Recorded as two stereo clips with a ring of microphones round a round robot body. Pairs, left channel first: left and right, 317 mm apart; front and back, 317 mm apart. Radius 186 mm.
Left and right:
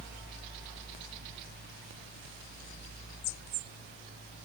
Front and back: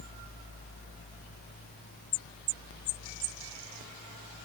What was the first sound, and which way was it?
Only background noise.